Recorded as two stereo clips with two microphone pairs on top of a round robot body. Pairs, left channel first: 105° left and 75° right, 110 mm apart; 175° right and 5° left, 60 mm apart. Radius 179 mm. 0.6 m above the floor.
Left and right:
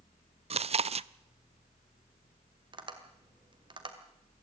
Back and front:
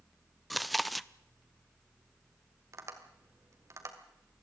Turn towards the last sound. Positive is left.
turn(degrees=-30)